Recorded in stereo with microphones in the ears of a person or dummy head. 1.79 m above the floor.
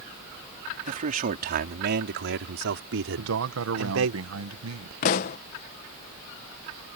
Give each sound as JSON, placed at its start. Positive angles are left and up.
{"t": 0.9, "sound": "a man speaking", "side_deg": -40}
{"t": 3.2, "sound": "a man speaking", "side_deg": -85}
{"t": 5.0, "sound": "a pop", "side_deg": 40}